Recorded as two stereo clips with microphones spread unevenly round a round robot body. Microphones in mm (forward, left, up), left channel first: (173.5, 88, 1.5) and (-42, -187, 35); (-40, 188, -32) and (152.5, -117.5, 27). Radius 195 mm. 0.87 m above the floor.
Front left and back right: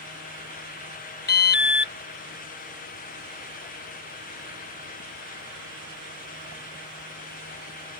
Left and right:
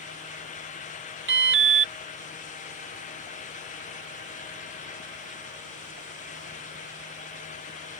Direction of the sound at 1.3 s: 5° left.